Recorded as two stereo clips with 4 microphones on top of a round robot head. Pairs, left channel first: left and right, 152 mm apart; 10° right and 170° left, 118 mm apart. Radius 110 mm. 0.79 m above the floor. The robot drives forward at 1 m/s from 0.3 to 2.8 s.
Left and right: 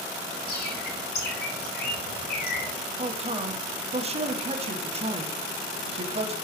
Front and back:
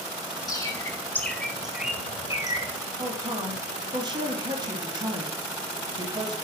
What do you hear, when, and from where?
0.5 s a bird: 50° left, 2 m; by 2.7 s 120° left, 1.8 m
3.0 s a man speaking: 135° right, 1.6 m